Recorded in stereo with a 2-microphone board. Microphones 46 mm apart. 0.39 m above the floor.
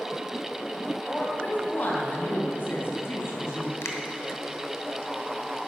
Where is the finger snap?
70° left (ahead or behind), 2 m.